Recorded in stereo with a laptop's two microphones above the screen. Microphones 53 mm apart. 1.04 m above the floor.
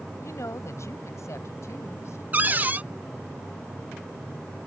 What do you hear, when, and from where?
0.2 s a woman speaking: 65° left (ahead or behind); by 2.2 s 60° left (ahead or behind)
2.3 s a cupboard door: 30° right (ahead or behind)